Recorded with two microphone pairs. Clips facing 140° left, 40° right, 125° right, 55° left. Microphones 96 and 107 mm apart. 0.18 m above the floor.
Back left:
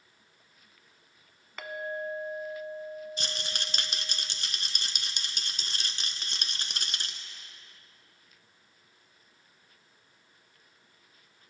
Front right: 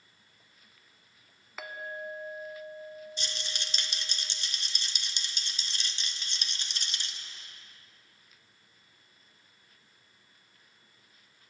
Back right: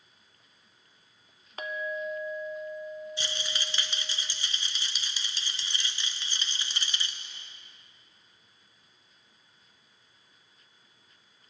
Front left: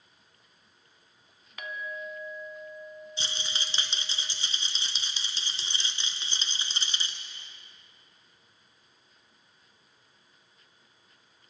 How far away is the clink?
About 0.7 m.